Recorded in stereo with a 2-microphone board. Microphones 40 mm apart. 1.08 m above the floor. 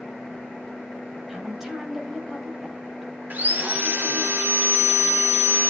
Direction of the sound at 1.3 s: 10° right (ahead or behind).